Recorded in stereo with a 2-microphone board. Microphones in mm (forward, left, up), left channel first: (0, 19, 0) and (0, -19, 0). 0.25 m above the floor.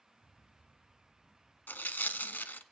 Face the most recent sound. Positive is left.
turn(degrees=55)  # may be behind; listen again after turning